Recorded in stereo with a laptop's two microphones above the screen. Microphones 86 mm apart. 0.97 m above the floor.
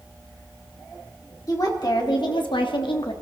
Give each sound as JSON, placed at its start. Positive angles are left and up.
{"t": 1.5, "sound": "a woman speaking", "side_deg": 45, "distance_m": 1.7}